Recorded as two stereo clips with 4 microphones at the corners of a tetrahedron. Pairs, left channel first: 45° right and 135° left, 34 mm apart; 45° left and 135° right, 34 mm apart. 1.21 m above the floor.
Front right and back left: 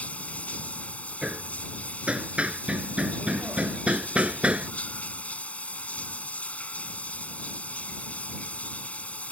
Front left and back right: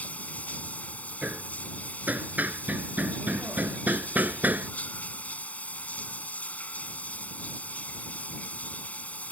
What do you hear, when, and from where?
0.0 s running water: straight ahead
1.2 s hammering: 170° right